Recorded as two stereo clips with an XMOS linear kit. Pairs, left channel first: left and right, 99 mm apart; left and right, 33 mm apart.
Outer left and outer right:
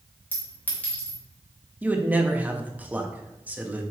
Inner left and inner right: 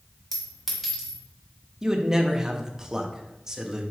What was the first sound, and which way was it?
A clink, 15° left (ahead or behind).